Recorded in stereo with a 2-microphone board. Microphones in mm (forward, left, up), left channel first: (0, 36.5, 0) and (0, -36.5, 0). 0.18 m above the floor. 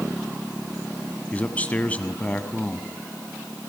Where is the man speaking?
20° left (ahead or behind), 1.2 m.